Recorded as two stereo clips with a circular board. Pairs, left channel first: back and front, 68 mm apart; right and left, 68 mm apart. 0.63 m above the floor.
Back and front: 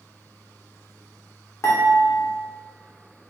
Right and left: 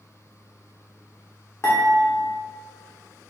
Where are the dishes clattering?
135° right, 1.1 m.